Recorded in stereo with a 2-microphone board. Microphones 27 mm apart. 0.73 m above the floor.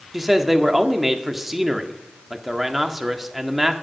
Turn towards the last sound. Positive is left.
turn(degrees=-5)  # may be behind; listen again after turning